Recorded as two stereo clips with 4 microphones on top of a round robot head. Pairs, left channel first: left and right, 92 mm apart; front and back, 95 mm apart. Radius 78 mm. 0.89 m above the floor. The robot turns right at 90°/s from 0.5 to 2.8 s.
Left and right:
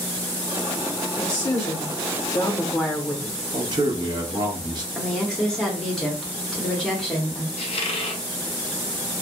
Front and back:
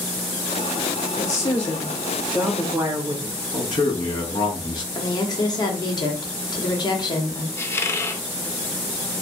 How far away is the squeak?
About 0.5 m.